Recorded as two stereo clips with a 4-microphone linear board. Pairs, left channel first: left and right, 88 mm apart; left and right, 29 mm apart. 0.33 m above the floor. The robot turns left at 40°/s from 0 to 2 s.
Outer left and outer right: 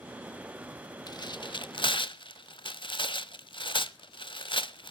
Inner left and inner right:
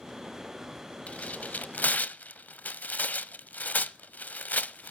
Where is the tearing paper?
50° left (ahead or behind), 0.6 m; by 4.9 s 65° left (ahead or behind), 0.6 m.